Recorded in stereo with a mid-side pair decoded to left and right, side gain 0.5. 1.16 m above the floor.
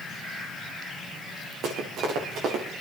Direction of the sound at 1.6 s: 70° right.